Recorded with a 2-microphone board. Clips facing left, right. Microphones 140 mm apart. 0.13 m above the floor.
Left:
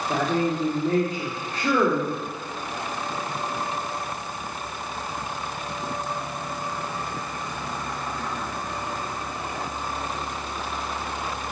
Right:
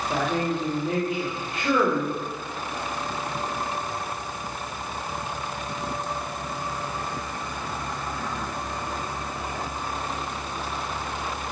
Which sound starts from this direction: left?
A woman speaking, at 0.1 s.